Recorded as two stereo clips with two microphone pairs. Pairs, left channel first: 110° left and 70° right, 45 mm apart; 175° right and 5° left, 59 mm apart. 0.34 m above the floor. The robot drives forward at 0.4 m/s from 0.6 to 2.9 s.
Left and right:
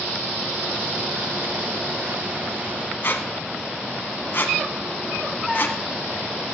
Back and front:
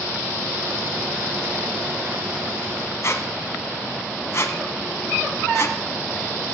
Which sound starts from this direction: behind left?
A squeak, at 3.0 s.